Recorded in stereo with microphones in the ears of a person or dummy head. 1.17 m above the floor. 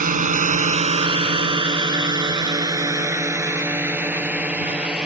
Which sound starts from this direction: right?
A drone, at 0.0 s.